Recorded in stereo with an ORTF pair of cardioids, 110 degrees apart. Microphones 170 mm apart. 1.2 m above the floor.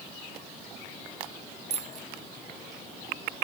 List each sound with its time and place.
1.7 s a bicycle bell: 40° right